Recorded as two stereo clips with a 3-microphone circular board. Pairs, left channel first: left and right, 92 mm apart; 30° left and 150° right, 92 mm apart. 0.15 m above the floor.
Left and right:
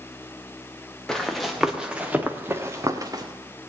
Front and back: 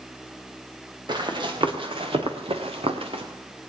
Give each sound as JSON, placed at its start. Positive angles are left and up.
{"t": 1.1, "sound": "running footsteps", "azimuth_deg": 175, "distance_m": 1.9}